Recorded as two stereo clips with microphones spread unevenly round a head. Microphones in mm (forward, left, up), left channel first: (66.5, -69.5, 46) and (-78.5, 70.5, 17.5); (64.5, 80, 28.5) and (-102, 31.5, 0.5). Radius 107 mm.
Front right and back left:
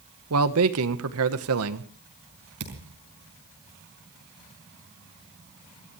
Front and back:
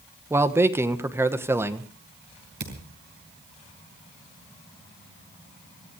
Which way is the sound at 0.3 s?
115° left.